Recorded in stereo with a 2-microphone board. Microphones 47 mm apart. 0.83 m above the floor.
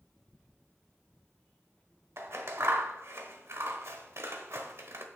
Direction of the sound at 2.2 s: 70° right (ahead or behind).